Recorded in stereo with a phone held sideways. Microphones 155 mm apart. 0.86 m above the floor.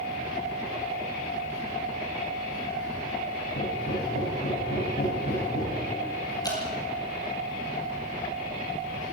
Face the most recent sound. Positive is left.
turn(degrees=25)  # may be behind; listen again after turning